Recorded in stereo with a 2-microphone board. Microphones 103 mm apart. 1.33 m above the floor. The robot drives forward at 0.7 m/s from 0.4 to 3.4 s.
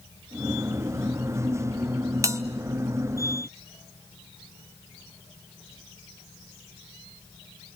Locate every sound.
2.2 s a bell: 30° right (ahead or behind), 1.0 m; by 2.4 s 25° right (ahead or behind), 1.1 m